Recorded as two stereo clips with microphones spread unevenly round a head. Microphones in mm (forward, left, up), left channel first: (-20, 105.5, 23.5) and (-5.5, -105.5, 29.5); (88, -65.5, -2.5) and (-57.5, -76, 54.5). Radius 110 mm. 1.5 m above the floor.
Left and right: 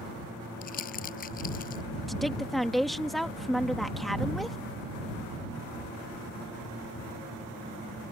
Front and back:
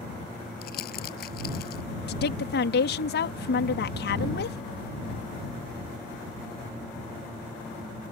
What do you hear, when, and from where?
0.6 s crumpling: 40° left
2.1 s a woman speaking: 5° left